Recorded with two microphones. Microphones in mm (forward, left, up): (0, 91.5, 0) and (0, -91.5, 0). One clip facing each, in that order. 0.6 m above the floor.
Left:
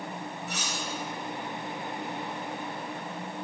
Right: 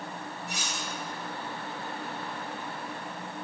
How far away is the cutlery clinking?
About 2 m.